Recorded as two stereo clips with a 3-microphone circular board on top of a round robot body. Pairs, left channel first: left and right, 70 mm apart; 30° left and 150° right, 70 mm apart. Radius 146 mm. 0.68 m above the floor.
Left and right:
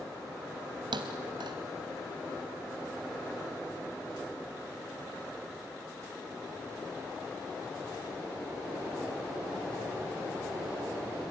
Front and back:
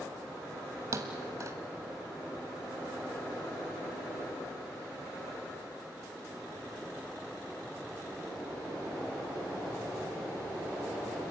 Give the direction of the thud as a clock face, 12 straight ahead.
3 o'clock.